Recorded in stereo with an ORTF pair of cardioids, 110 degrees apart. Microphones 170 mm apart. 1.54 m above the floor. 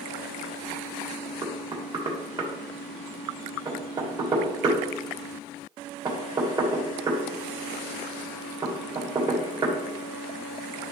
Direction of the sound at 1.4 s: 30° right.